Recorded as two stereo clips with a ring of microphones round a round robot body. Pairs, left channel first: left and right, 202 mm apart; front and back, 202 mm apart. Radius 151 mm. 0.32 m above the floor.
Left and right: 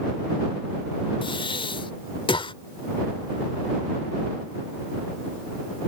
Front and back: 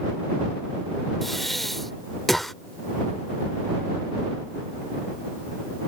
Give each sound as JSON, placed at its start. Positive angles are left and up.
{"t": 1.2, "sound": "breathing", "azimuth_deg": 90}